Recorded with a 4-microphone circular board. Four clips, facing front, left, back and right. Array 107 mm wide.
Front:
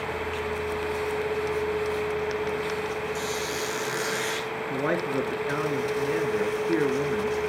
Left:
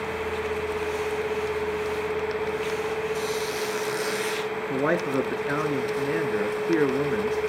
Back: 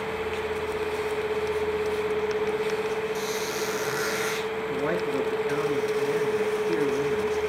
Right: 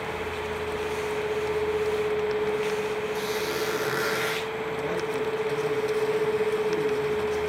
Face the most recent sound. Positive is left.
turn(degrees=75)